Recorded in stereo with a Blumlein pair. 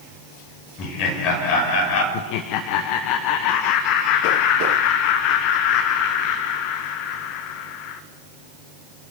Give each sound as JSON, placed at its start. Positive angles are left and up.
{"t": 0.8, "sound": "laughter", "azimuth_deg": 35, "distance_m": 6.5}
{"t": 2.1, "sound": "laughter", "azimuth_deg": 40, "distance_m": 1.1}